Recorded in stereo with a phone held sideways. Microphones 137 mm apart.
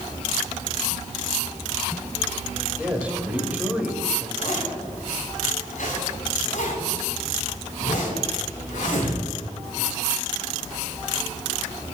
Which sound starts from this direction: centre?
A man speaking, at 2.8 s.